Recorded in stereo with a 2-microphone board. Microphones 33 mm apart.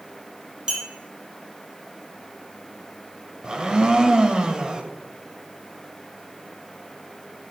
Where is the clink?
25° right (ahead or behind), 1.7 m.